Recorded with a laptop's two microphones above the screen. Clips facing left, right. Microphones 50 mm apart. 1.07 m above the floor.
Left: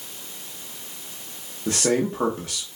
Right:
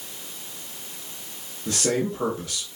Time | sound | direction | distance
1.7 | a man speaking | 30° left (ahead or behind) | 0.8 m